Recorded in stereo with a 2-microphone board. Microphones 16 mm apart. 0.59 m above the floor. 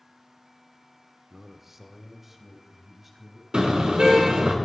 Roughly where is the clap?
No clap in this recording.